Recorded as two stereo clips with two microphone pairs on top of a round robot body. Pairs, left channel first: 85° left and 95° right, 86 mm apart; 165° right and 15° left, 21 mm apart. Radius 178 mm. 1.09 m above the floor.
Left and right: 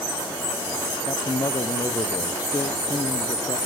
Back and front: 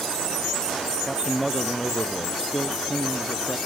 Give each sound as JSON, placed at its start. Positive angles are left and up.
{"t": 1.1, "sound": "a man speaking", "azimuth_deg": 100, "distance_m": 0.9}